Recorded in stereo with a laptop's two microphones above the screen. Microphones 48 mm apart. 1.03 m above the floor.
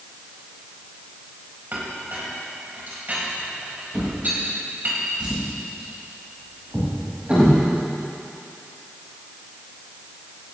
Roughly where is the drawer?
Right.